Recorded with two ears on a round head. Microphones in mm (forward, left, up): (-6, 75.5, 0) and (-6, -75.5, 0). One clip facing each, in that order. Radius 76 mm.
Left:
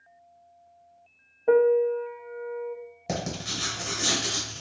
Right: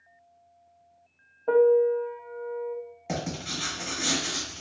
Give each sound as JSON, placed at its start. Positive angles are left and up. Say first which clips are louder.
{"t": 1.5, "sound": "a piano", "louder": "even", "side_deg": 15, "distance_m": 0.5}
{"t": 3.1, "sound": "writing", "louder": "left 1 dB", "side_deg": 45, "distance_m": 1.6}